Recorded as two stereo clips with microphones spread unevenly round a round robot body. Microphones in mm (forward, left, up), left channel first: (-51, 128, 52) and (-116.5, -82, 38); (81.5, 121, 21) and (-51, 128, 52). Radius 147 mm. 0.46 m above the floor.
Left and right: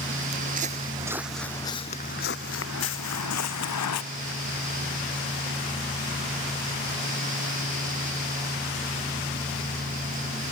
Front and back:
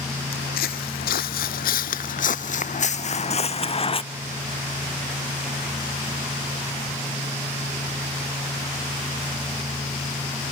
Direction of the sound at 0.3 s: 50° right.